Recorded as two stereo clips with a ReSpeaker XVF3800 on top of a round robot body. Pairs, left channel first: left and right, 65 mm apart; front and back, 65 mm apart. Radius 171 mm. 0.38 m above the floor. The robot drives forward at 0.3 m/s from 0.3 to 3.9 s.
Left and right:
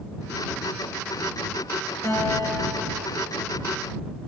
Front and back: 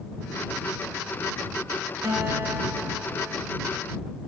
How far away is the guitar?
About 3.5 m.